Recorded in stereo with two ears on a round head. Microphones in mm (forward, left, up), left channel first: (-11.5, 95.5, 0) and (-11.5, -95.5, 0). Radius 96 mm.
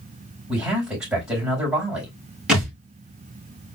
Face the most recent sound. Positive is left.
turn(degrees=-5)  # may be behind; listen again after turning